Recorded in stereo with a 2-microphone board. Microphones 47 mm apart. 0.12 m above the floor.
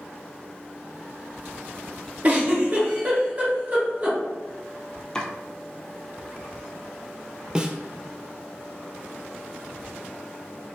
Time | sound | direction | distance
2.2 | a giggle | 35° right (ahead or behind) | 1.9 m
5.2 | chopping | 15° left (ahead or behind) | 0.6 m
7.5 | a snare drum | 20° right (ahead or behind) | 0.5 m